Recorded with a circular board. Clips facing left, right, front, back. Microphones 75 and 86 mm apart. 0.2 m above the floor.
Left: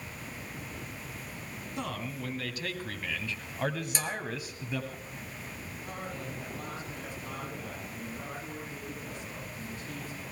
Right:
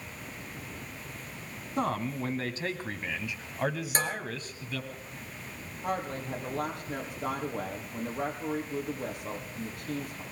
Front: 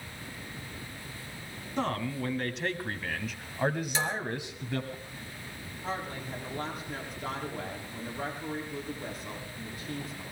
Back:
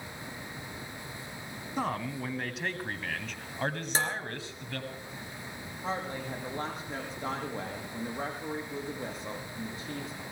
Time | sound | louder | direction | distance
1.8 | a man speaking | right 7 dB, front 1 dB | 105° right | 2.0 m
4.0 | dishes clattering | right 4 dB, even | 135° right | 3 m
5.8 | a woman speaking | right 8 dB, back 2 dB | 120° right | 7 m